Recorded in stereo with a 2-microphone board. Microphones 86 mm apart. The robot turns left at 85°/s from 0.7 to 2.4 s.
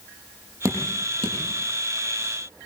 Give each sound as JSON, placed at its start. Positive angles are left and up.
{"t": 0.7, "sound": "dripping", "side_deg": -35, "distance_m": 9.5}